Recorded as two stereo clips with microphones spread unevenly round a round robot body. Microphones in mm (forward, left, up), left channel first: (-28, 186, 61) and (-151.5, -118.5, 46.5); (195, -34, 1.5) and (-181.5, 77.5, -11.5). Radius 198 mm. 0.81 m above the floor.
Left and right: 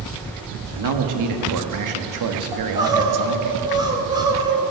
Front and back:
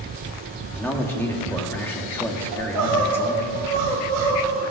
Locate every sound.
0.7 s a man speaking: 100° right, 1.6 m
2.5 s crying: 170° left, 2.5 m